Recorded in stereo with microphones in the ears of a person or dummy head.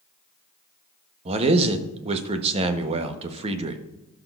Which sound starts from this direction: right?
A man speaking, at 1.2 s.